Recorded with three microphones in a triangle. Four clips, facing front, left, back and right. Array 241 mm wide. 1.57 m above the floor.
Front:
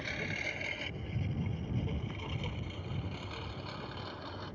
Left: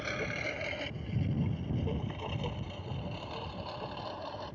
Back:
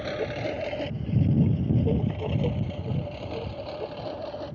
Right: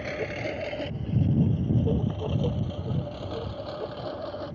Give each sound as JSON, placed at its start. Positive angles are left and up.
{"t": 0.0, "sound": "a lawn mower", "azimuth_deg": -160}